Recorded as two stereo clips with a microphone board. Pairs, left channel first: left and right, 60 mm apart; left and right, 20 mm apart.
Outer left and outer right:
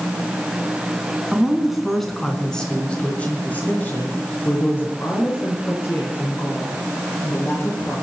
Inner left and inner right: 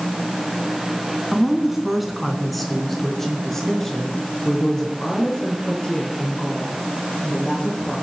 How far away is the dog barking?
No dog barking in this recording.